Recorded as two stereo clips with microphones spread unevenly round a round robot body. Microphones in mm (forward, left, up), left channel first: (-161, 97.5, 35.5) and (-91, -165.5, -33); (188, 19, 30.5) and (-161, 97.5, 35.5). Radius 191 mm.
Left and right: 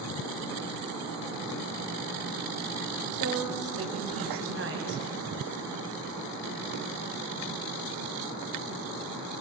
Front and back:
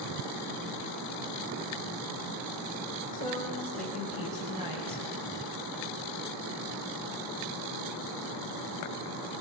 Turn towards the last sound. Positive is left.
turn(degrees=-120)